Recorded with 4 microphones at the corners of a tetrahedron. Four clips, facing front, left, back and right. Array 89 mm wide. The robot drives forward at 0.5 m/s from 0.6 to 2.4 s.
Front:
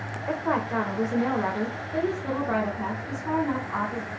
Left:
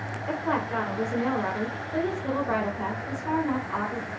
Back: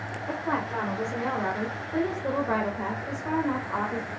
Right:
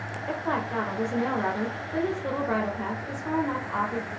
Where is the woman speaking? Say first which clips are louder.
Left 1 dB, front 3 dB; 10° right, 1.0 m; by 4.1 s 170° right, 1.0 m.